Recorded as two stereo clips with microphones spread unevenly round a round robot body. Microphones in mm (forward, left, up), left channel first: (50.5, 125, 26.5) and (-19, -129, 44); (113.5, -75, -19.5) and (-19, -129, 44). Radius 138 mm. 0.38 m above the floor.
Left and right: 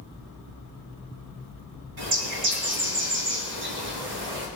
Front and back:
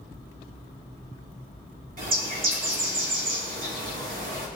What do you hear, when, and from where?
2.0 s a bird: 135° right, 4 m